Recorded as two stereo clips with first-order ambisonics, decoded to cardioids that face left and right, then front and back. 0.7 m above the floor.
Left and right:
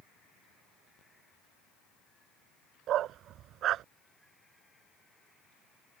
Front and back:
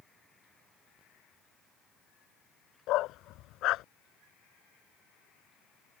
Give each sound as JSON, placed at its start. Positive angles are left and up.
{"t": 2.9, "sound": "a dog barking", "azimuth_deg": -40}